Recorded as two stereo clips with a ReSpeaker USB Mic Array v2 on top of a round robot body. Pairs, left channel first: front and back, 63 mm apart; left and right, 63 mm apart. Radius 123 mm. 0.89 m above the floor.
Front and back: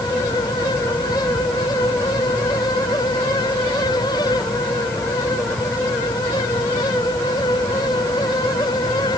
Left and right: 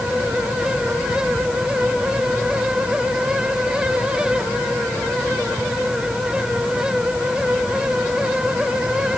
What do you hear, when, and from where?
Only background noise.